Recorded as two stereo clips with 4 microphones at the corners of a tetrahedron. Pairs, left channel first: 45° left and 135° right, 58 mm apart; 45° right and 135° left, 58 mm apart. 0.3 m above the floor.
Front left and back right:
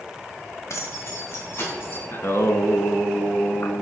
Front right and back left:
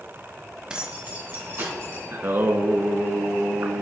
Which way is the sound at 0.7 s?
60° left.